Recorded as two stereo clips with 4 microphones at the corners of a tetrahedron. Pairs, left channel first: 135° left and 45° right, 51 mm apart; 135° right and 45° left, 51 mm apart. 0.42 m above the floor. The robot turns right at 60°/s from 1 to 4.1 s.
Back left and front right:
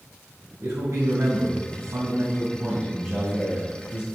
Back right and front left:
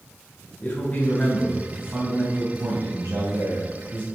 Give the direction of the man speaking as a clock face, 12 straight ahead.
3 o'clock.